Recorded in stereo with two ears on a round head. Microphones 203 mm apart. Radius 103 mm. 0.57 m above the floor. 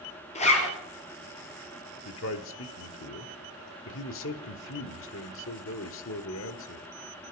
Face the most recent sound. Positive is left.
turn(degrees=60)  # may be behind; listen again after turning